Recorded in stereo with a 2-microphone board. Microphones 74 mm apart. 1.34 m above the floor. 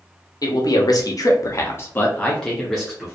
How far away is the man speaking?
About 0.9 m.